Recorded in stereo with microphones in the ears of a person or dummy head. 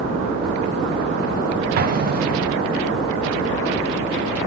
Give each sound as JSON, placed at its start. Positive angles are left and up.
{"t": 1.8, "sound": "an explosion", "side_deg": -45, "distance_m": 0.7}